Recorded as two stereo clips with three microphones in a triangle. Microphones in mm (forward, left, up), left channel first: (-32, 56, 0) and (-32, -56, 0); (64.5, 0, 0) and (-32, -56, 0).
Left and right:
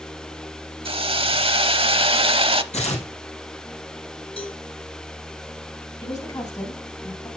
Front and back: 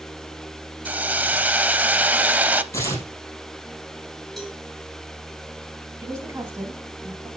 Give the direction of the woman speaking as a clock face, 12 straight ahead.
7 o'clock.